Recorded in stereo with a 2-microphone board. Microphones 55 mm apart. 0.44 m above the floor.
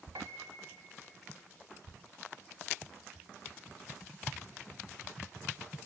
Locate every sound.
0.1 s a piano: 85° right, 0.9 m